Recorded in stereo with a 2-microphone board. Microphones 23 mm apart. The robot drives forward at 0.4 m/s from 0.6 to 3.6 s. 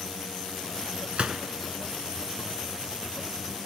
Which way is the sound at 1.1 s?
75° right (ahead or behind).